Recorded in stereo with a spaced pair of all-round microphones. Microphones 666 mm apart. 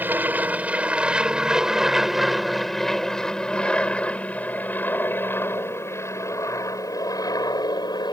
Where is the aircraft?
5° right (ahead or behind); by 8.1 s 5° left (ahead or behind).